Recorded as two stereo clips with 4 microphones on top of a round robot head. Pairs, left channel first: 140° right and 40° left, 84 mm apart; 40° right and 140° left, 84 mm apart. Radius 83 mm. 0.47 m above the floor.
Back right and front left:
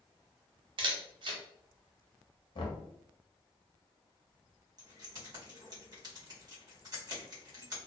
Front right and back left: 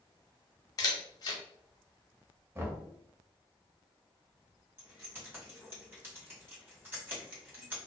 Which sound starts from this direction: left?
Keys jangling, at 4.8 s.